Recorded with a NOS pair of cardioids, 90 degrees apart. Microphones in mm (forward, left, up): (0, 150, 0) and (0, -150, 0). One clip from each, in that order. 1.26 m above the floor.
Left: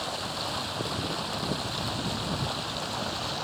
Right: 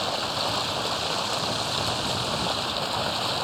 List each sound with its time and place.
0.0 s running water: 40° right